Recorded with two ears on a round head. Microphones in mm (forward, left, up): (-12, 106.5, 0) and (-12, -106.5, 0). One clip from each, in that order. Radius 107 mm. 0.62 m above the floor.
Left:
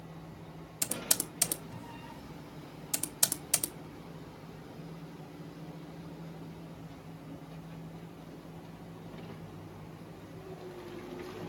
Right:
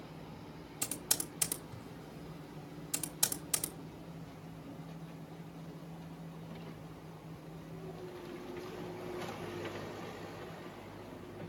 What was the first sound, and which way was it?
Typing on a keyboard, 15° left (ahead or behind).